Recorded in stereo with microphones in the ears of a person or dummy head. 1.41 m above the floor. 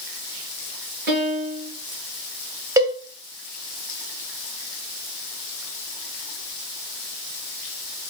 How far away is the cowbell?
About 0.5 m.